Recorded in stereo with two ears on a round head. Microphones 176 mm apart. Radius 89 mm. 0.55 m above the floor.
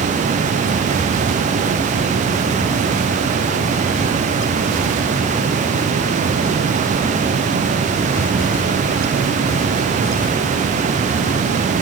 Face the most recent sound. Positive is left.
No sound to turn to.